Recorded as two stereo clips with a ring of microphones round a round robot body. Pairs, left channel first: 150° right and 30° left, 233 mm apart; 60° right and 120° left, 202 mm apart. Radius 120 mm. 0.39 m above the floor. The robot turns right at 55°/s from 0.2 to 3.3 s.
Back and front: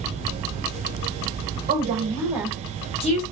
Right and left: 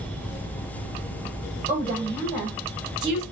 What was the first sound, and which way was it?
A woman speaking, 75° left.